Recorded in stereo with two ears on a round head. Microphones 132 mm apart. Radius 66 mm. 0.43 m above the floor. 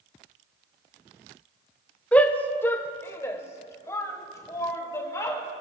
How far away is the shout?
About 0.8 m.